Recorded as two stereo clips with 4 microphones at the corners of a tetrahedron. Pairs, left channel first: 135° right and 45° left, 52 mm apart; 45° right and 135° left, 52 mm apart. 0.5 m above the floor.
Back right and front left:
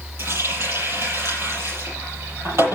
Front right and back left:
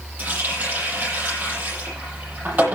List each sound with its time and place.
0.2 s a running tap: 80° left, 9 m